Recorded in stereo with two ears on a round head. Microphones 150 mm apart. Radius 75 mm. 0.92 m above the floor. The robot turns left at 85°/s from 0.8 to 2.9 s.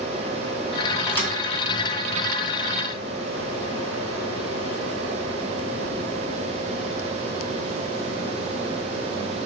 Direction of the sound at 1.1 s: Centre (ahead or behind).